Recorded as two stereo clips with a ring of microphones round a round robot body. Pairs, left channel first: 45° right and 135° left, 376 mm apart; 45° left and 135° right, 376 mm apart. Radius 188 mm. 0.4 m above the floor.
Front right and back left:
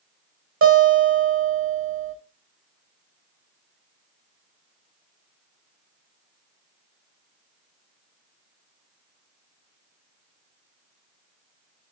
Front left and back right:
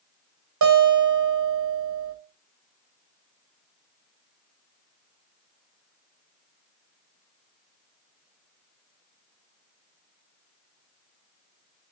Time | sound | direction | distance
0.6 | a guitar | 170° right | 2.5 m